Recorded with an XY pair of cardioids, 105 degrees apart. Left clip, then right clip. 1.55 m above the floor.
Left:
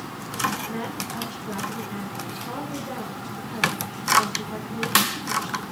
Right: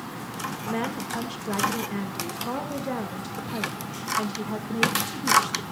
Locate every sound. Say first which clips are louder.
0.7 s a woman speaking: right 2 dB; 50° right, 2.5 m